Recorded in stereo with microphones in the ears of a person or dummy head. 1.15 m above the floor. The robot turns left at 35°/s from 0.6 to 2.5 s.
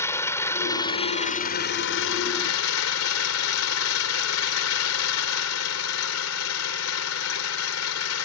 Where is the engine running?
165° left; by 8.3 s 95° left.